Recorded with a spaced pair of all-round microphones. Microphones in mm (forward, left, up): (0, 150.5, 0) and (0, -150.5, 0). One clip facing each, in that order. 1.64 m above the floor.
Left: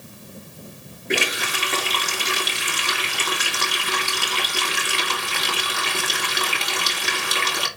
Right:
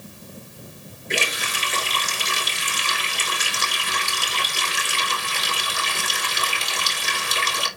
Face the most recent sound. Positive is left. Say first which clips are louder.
# left 4 dB
turn(degrees=70)  # may be behind; listen again after turning